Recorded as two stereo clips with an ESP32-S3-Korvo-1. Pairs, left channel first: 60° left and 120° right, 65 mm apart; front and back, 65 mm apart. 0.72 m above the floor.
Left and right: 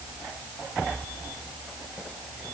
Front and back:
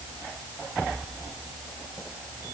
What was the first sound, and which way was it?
Only background noise.